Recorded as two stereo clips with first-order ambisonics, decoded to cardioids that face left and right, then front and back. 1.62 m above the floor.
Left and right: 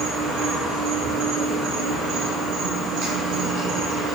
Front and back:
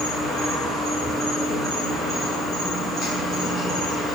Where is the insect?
65° right, 1.5 m.